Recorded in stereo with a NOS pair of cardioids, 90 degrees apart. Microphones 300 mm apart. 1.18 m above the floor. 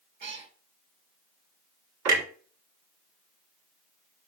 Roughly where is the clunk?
Ahead right.